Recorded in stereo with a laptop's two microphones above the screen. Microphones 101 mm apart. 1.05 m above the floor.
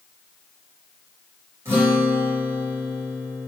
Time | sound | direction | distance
1.6 | a guitar | 25° right (ahead or behind) | 0.9 m